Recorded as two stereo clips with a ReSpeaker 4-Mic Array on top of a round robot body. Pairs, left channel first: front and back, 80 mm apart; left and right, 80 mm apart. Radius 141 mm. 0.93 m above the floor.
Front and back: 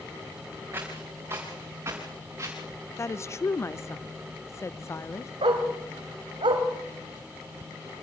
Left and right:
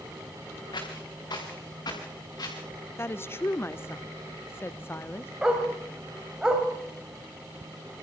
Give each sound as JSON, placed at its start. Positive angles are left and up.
{"t": 0.7, "sound": "footsteps", "azimuth_deg": 120, "distance_m": 5.0}
{"t": 3.0, "sound": "a woman speaking", "azimuth_deg": 40, "distance_m": 0.7}
{"t": 5.4, "sound": "a dog barking", "azimuth_deg": -170, "distance_m": 2.5}